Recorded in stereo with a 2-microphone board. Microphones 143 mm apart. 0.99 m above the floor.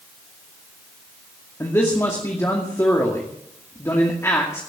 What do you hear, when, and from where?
1.6 s a man speaking: 20° left (ahead or behind), 2.5 m